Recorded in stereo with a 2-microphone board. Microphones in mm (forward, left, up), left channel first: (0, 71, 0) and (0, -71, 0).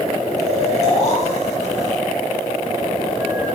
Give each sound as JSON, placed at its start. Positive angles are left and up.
{"t": 0.4, "sound": "snoring", "side_deg": 50, "distance_m": 6.5}